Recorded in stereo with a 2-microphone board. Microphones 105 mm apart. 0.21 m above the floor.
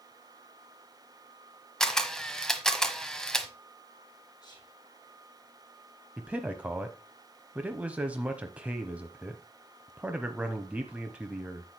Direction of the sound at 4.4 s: 45° left (ahead or behind).